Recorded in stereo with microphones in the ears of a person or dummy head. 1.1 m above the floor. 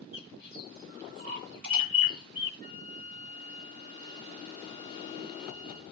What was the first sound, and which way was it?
A bird, 55° right (ahead or behind).